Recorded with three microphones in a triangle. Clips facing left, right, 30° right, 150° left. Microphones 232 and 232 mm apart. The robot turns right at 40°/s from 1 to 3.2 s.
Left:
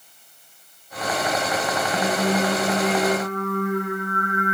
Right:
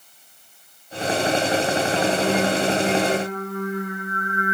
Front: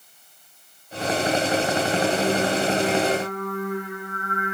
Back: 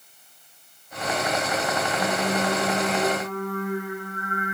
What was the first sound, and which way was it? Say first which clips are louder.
Singing: even, front 4 dB; 15° left.